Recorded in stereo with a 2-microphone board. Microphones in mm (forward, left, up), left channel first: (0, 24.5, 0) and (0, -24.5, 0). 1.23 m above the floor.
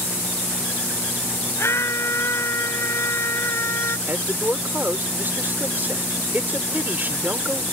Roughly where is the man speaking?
Right.